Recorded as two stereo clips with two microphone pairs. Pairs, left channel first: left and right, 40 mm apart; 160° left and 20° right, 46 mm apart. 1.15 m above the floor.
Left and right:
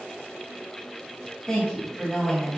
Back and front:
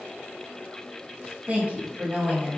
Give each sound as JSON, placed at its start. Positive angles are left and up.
{"t": 1.5, "sound": "a woman speaking", "azimuth_deg": 15, "distance_m": 0.9}